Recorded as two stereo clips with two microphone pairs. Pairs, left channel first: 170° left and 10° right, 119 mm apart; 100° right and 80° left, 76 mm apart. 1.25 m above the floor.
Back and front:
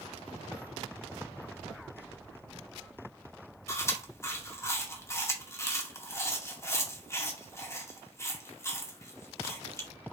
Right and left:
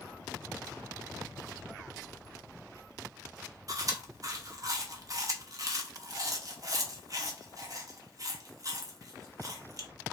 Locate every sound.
3.7 s chewing: 110° left, 0.9 m